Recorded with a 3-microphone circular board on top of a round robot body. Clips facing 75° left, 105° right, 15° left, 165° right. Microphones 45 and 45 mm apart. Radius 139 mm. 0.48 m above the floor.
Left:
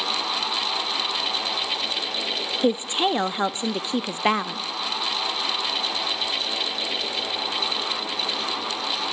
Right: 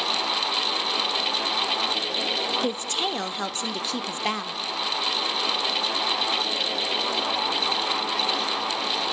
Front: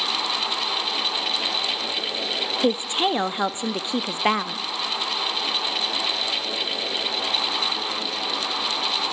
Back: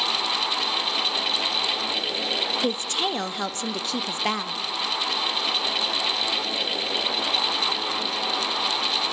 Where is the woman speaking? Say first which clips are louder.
Left 5 dB, front 4 dB; 50° left, 0.7 m.